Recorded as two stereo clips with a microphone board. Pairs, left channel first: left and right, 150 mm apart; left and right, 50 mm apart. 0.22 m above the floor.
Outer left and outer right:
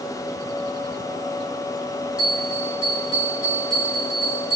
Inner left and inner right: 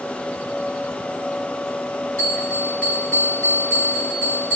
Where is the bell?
30° left (ahead or behind), 3.5 m.